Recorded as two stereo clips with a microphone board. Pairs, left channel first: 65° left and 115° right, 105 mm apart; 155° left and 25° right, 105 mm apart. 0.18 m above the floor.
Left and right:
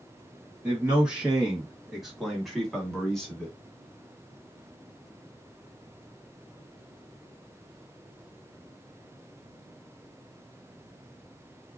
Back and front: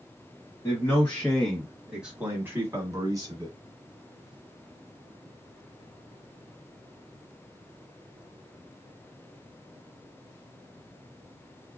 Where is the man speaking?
Straight behind, 1.5 m; by 3.5 s 15° right, 1.7 m.